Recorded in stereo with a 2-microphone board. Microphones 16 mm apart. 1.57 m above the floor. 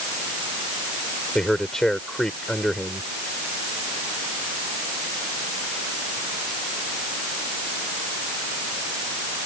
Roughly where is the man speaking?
Left.